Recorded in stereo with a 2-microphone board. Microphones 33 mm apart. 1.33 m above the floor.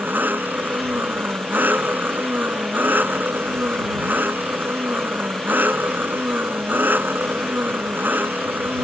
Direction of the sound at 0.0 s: 80° right.